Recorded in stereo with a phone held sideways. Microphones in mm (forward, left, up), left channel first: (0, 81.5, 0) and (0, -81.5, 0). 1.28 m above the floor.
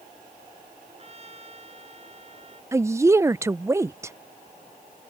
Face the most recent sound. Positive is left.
turn(degrees=-20)  # may be behind; listen again after turning